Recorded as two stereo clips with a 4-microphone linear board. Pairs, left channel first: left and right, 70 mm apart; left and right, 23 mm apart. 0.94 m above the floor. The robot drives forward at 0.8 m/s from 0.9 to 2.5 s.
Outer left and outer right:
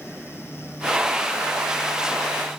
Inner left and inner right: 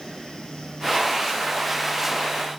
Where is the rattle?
I don't hear a rattle.